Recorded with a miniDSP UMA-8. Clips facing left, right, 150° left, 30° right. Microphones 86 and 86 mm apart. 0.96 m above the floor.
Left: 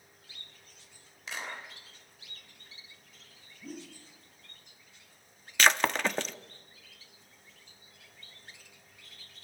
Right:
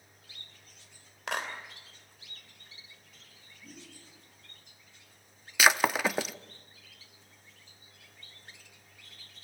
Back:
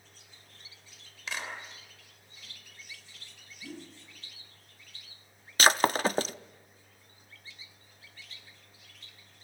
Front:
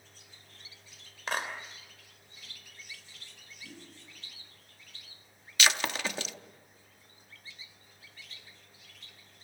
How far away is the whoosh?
About 2.5 m.